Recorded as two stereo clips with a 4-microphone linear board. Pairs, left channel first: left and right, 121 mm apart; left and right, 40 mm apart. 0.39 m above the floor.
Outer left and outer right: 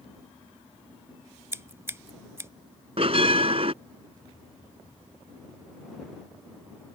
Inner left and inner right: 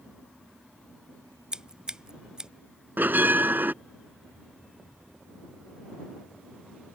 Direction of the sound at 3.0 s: 55° right (ahead or behind).